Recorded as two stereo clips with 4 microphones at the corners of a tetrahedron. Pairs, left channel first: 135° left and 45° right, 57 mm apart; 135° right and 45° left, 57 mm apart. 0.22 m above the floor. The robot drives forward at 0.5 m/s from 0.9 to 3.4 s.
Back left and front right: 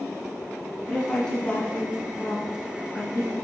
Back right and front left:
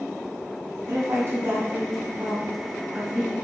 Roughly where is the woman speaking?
Ahead left.